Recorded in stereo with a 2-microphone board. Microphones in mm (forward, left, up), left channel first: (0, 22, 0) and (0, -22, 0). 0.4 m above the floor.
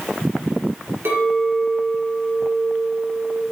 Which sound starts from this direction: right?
A clink, at 1.1 s.